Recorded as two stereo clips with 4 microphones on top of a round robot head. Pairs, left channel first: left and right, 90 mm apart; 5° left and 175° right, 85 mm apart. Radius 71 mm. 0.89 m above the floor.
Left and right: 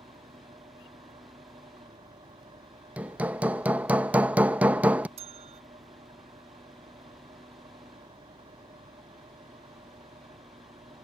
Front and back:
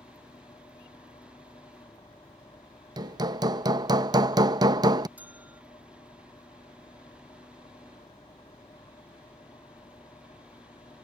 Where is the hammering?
160° right.